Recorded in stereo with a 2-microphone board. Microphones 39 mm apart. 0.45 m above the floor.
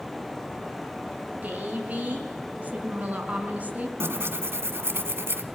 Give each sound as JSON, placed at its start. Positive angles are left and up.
{"t": 1.4, "sound": "a woman speaking", "side_deg": -40, "distance_m": 5.5}
{"t": 4.0, "sound": "tearing paper", "side_deg": -85, "distance_m": 1.4}